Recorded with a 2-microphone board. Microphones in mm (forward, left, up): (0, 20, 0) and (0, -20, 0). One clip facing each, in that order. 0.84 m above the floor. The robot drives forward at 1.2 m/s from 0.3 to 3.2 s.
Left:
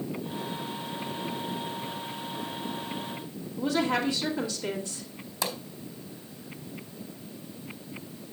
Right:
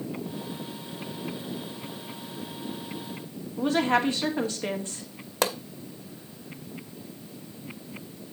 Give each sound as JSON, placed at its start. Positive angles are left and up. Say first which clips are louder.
{"t": 3.6, "sound": "a woman speaking", "louder": "right 3 dB", "side_deg": -35, "distance_m": 2.0}
{"t": 5.4, "sound": "a pop", "louder": "right 6 dB", "side_deg": -55, "distance_m": 0.9}